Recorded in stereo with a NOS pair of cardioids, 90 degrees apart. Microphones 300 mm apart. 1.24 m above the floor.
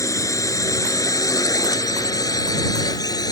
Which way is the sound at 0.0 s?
10° left.